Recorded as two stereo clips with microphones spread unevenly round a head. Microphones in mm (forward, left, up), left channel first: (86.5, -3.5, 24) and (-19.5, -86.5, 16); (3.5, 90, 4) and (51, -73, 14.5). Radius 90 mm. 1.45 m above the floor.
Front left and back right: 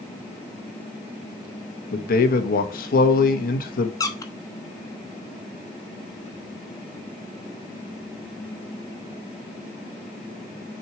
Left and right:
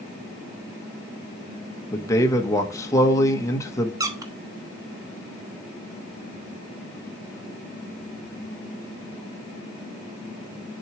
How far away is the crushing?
No crushing in this recording.